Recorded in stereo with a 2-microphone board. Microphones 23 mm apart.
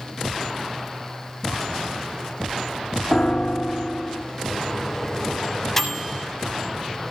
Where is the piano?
45° left (ahead or behind), 1.8 m.